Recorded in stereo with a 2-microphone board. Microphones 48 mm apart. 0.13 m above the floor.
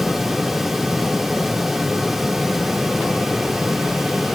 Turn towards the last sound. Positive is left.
No sound to turn to.